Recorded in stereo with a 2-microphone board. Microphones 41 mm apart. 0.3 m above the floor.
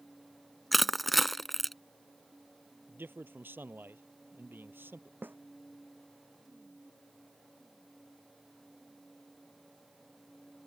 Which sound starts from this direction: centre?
Crushing, at 0.7 s.